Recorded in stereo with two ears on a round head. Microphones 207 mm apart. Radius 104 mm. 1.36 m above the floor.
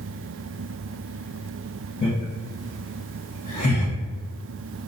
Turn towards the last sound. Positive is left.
turn(degrees=70)  # may be behind; listen again after turning